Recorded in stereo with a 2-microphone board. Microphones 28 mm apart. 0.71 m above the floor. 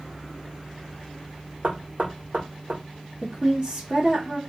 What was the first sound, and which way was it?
Knocking, 60° right (ahead or behind).